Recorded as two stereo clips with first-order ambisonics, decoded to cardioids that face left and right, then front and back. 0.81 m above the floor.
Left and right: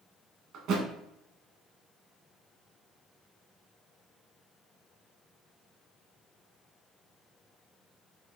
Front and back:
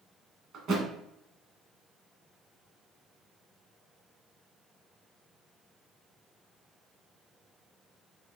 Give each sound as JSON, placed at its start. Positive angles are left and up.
{"t": 0.5, "sound": "a thud", "azimuth_deg": -125, "distance_m": 1.1}